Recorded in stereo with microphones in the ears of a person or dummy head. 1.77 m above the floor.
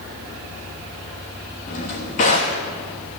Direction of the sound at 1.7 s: 30° left (ahead or behind).